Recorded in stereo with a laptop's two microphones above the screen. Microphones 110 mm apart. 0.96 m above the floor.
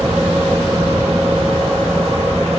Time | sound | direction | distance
0.0 | a fan | 70° right (ahead or behind) | 6 m